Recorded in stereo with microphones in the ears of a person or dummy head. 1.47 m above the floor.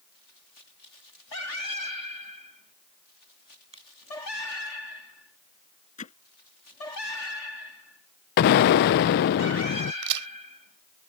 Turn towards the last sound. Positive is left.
turn(degrees=-65)  # may be behind; listen again after turning